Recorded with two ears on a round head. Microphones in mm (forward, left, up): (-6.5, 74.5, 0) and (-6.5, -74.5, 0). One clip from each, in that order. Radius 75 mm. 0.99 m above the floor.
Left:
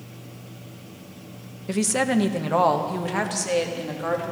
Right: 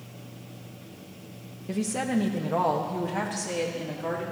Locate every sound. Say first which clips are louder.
1.7 s a woman speaking: left 6 dB; 35° left (ahead or behind), 0.6 m; by 4.2 s 50° left (ahead or behind), 1.9 m